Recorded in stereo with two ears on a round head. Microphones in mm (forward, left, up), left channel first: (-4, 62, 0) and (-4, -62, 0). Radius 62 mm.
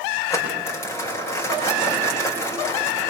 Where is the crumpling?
20° left (ahead or behind), 6.5 m.